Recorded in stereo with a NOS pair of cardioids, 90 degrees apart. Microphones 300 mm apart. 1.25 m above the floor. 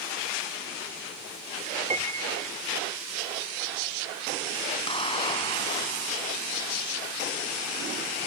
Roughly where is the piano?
Ahead.